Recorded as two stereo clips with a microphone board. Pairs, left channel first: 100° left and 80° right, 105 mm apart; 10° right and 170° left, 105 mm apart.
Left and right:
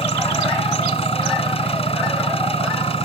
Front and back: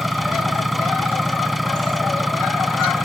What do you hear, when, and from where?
0.0 s an engine running: 80° left